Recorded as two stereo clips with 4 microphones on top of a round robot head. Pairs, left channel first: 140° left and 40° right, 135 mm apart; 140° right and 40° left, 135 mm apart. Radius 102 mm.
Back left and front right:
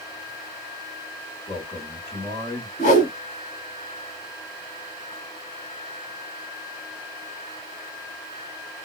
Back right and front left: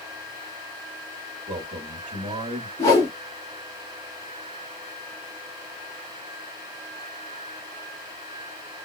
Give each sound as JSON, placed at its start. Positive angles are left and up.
{"t": 1.5, "sound": "a man speaking", "azimuth_deg": 75, "distance_m": 1.8}
{"t": 2.8, "sound": "a whoosh", "azimuth_deg": 160, "distance_m": 0.9}